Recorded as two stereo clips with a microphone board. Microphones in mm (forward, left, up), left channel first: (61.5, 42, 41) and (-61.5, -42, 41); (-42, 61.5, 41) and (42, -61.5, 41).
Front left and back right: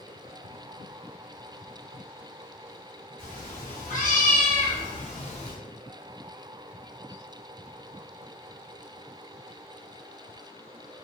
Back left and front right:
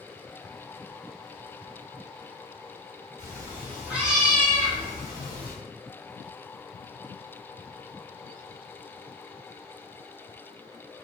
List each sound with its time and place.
3.2 s a cat meowing: 10° left, 1.5 m; by 5.5 s 75° left, 1.0 m